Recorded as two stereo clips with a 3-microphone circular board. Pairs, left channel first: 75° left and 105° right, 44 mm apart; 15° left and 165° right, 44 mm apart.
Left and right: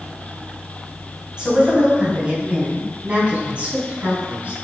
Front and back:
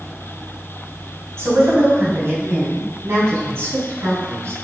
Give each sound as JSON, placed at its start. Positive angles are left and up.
{"t": 1.4, "sound": "a woman speaking", "azimuth_deg": -175, "distance_m": 3.0}